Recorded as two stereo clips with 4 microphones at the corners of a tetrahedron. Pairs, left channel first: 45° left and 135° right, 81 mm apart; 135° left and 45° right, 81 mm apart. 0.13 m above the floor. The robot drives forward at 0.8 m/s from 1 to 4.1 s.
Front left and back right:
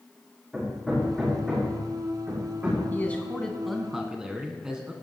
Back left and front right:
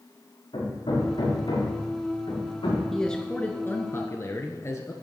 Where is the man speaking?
55° left, 1.1 m; by 4.9 s 150° left, 1.3 m.